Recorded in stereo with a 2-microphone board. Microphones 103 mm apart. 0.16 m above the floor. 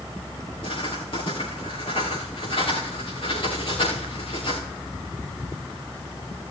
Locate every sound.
0.6 s writing: 60° left (ahead or behind), 5 m